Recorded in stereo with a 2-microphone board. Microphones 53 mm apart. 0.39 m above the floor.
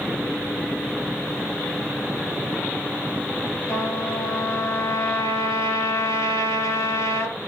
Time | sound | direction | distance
3.7 | a trumpet | 80° left | 4.5 m